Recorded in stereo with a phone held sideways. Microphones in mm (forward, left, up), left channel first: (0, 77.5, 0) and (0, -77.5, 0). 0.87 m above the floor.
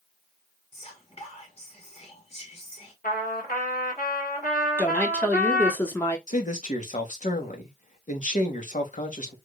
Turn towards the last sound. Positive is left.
turn(degrees=55)  # may be behind; listen again after turning